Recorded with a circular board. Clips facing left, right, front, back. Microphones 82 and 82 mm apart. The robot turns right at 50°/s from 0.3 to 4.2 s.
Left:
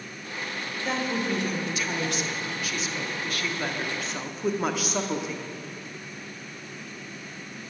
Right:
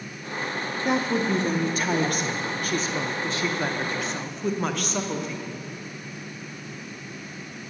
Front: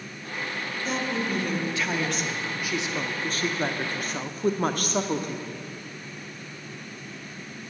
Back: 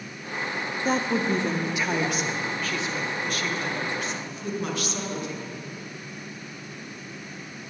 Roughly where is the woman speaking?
Behind.